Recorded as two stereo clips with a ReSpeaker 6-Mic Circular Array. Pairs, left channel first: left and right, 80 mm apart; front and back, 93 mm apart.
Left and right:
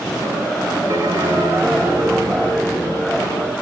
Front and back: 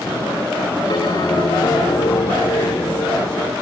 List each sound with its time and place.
0.9 s a bell: 40° right, 1.8 m